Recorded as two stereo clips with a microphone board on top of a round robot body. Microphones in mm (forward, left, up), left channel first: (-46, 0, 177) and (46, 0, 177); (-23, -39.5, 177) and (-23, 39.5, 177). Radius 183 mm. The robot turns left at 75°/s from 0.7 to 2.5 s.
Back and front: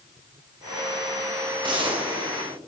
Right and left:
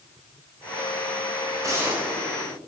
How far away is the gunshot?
About 2.5 m.